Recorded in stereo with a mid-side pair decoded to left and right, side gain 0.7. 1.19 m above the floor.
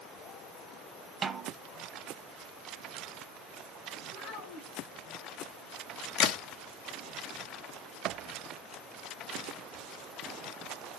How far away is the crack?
About 1.1 m.